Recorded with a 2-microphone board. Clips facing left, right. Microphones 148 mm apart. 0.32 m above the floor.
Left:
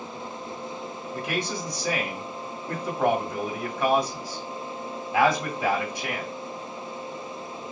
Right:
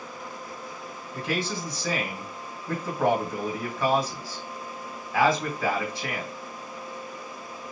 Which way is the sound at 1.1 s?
15° left (ahead or behind).